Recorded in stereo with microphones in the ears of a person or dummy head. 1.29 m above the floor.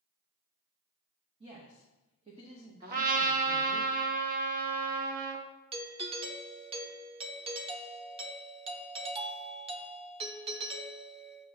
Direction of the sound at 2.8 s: 50° right (ahead or behind).